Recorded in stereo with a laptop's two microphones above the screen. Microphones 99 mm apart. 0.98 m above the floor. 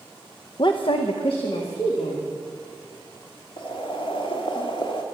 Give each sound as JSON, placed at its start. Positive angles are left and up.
{"t": 0.6, "sound": "a woman speaking", "side_deg": 50, "distance_m": 0.6}
{"t": 3.6, "sound": "boiling", "side_deg": 55, "distance_m": 1.3}